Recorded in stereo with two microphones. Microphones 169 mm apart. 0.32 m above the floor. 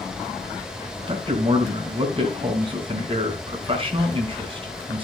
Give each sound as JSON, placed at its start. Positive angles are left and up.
{"t": 1.1, "sound": "a man speaking", "side_deg": -35, "distance_m": 3.5}